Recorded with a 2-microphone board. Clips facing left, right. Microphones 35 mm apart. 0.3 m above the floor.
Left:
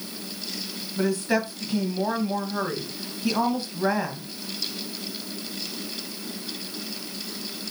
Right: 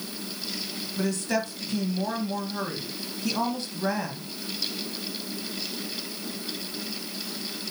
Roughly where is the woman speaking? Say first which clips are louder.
Left 4 dB; centre.